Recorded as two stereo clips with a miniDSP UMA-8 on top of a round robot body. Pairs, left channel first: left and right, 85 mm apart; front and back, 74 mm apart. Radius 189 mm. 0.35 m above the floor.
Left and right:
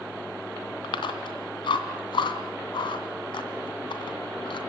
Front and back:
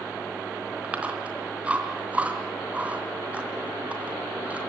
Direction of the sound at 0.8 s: 110° left.